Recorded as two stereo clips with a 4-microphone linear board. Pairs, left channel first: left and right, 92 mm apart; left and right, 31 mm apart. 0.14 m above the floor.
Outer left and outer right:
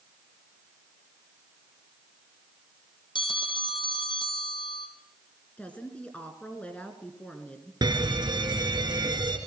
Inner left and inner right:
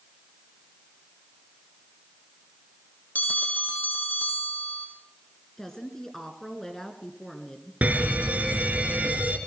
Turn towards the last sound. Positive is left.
turn(degrees=-50)  # may be behind; listen again after turning